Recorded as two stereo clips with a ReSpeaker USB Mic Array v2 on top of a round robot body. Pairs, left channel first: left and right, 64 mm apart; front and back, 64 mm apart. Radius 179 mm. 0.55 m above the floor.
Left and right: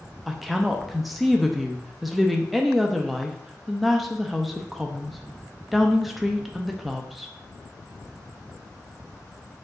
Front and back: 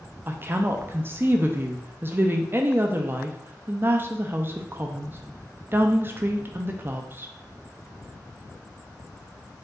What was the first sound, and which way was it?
A woman speaking, 175° right.